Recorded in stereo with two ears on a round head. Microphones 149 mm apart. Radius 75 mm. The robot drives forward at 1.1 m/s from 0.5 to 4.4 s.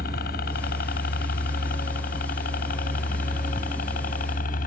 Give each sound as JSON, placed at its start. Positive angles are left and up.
{"t": 0.0, "sound": "a helicopter", "side_deg": 60}